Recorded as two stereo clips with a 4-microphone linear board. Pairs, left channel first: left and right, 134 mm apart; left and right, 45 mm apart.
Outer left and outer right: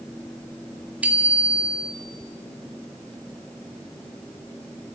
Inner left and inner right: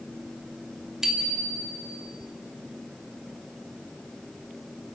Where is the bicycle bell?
10° right (ahead or behind), 2.5 m.